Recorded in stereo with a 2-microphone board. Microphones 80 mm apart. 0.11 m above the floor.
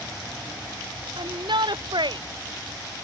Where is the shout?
75° right (ahead or behind).